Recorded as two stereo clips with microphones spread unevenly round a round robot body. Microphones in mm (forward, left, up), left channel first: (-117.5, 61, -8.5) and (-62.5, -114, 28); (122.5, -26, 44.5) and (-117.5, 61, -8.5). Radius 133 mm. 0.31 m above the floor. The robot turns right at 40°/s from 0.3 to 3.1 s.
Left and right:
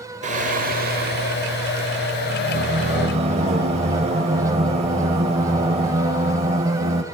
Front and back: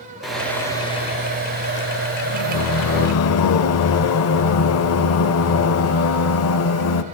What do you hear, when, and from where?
0.2 s singing: 120° right, 0.6 m; by 7.0 s 10° right, 0.6 m